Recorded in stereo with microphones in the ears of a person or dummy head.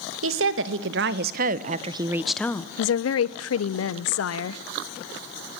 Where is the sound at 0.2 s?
75° right (ahead or behind), 2.5 m; by 2.7 s 20° left (ahead or behind), 1.0 m.